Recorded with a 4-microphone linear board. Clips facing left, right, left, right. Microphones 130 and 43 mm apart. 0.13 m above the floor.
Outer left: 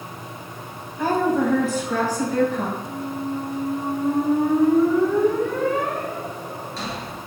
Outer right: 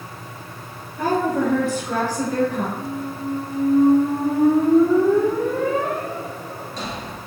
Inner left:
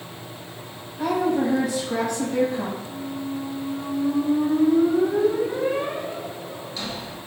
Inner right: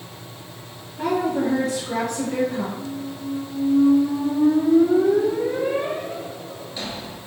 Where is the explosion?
No explosion in this recording.